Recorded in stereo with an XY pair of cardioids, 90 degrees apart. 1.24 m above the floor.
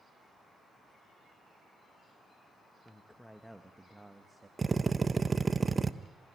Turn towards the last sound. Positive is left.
turn(degrees=-30)